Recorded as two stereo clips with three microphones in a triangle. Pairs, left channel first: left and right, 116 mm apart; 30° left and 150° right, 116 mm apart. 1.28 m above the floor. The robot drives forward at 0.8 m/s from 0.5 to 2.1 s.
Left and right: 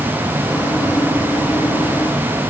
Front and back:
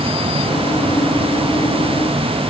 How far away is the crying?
No crying in this recording.